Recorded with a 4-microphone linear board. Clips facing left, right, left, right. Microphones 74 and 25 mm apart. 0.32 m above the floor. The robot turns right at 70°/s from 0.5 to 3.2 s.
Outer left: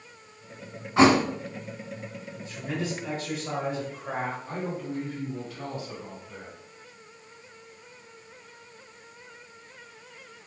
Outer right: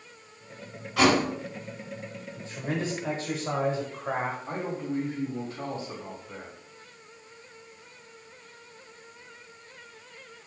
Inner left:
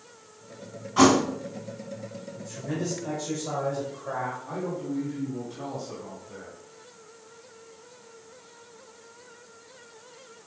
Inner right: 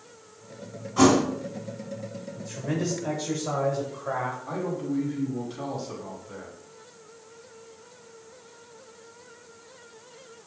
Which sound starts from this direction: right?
A man speaking, at 4.5 s.